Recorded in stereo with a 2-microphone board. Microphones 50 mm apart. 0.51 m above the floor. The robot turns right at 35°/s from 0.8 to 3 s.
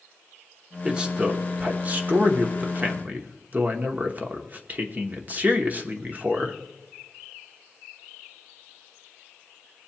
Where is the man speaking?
155° right, 1.0 m; by 6.6 s 80° right, 1.0 m.